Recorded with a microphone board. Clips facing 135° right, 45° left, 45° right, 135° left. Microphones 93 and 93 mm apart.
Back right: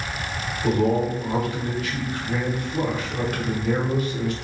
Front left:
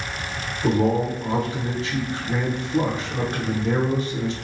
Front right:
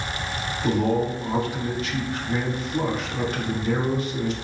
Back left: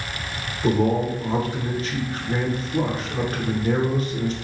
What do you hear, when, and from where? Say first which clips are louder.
0.6 s a man speaking: front left 1 dB, back left 2 dB; 100° left, 0.9 m